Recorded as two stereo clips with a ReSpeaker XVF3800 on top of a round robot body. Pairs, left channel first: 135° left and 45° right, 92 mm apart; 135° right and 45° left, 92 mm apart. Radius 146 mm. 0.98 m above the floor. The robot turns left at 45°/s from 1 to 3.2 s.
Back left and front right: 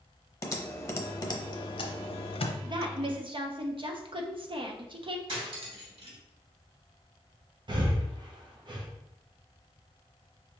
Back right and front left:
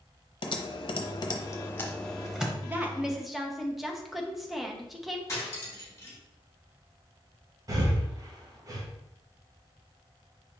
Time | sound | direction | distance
0.4 | typing on a keyboard | 170° right | 0.7 m
2.6 | a woman speaking | 15° right | 1.0 m
5.3 | cutlery clinking | 70° right | 1.1 m
7.7 | breathing | 5° right | 0.9 m